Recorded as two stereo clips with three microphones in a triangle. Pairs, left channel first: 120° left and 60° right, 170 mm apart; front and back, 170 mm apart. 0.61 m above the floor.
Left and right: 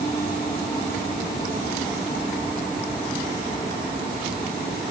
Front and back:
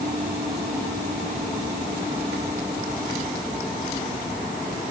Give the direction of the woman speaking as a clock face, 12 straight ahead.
No woman speaking in this recording.